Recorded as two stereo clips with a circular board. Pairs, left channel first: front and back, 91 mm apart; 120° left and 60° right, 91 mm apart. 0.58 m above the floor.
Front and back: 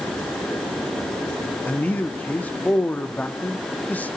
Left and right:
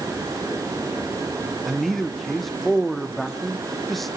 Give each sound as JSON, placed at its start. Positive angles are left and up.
{"t": 1.7, "sound": "a man speaking", "azimuth_deg": 30, "distance_m": 1.0}